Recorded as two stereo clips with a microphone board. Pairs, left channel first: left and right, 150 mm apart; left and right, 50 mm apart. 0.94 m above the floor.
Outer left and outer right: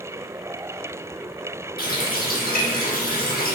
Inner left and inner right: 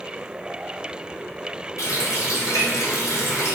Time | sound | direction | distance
1.8 | a running tap | 80° left | 0.9 m